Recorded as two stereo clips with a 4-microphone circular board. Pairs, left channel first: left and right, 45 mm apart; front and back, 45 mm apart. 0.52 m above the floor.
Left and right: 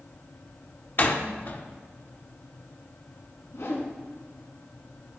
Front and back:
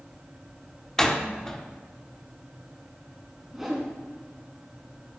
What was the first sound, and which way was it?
A door slam, 75° left.